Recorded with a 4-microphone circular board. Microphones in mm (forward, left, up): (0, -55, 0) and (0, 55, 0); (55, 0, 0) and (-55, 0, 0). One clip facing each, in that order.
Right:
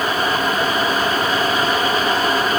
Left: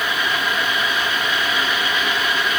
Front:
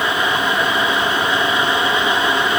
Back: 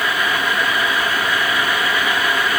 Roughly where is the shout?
No shout in this recording.